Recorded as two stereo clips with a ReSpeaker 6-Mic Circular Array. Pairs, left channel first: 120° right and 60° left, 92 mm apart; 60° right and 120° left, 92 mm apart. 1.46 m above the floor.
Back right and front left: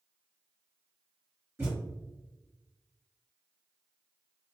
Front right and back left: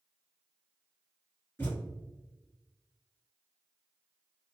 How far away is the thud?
About 1.7 m.